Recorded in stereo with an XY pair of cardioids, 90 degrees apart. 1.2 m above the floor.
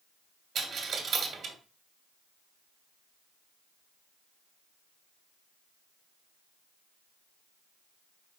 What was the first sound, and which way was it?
A dropped coin, 70° right.